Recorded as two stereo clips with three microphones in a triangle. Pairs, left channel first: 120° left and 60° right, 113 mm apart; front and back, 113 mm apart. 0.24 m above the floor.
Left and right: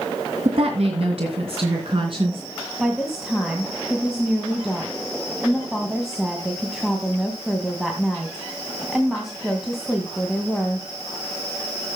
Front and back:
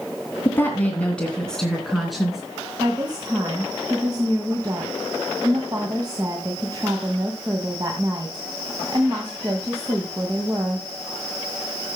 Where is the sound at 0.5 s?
65° right, 2.5 m; by 2.4 s 95° right, 3.5 m.